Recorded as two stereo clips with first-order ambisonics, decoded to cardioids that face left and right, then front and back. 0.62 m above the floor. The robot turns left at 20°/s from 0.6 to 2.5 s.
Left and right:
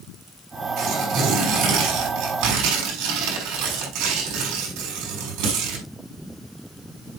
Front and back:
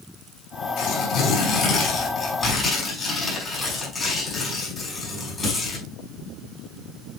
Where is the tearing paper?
40° right, 5.5 m; by 5.9 s 75° right, 5.5 m.